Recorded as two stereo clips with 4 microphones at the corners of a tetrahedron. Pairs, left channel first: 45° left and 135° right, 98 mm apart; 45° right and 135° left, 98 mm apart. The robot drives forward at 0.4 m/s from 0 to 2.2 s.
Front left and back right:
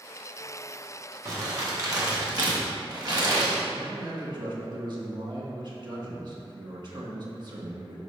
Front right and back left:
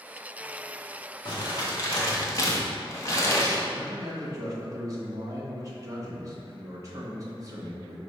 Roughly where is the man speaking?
Behind.